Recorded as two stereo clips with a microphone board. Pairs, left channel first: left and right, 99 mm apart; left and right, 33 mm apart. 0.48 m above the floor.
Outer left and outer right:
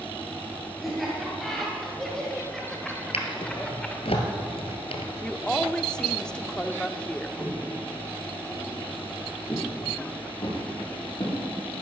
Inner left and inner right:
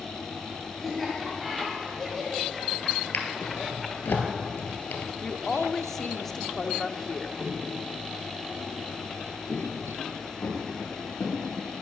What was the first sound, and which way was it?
Laughter, centre (ahead or behind).